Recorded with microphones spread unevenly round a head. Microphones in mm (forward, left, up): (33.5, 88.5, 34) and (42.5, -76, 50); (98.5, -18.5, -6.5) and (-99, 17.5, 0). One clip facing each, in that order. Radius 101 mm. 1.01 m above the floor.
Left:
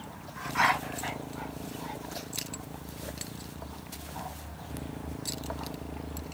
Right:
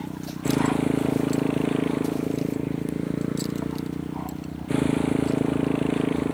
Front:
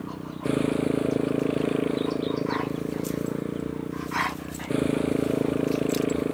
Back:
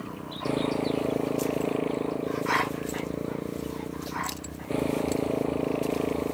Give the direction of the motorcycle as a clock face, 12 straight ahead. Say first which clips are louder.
Right 14 dB, front 3 dB; 3 o'clock.